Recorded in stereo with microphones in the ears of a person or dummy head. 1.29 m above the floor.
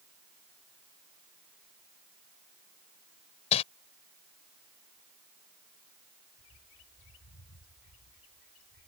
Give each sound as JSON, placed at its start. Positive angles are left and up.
{"t": 3.5, "sound": "crumpling", "side_deg": 30}
{"t": 6.4, "sound": "a bird", "side_deg": 70}